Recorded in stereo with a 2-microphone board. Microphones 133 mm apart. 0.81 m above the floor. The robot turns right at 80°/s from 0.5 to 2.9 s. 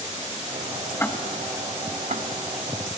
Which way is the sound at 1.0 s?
20° left (ahead or behind).